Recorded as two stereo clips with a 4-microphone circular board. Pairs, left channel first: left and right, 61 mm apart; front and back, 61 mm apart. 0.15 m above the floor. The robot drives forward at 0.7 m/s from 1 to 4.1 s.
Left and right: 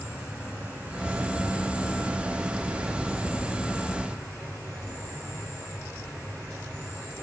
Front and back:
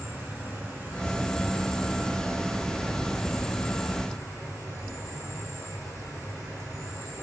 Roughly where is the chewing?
I don't hear chewing.